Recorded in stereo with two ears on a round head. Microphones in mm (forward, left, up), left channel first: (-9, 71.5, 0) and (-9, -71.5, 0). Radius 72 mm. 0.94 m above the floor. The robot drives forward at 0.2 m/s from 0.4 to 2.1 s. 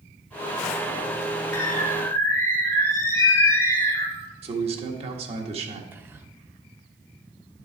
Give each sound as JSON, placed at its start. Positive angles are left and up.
{"t": 1.5, "sound": "a bird", "side_deg": 20, "distance_m": 1.3}
{"t": 4.4, "sound": "a man speaking", "side_deg": -40, "distance_m": 1.6}
{"t": 5.9, "sound": "whispering", "side_deg": -15, "distance_m": 1.0}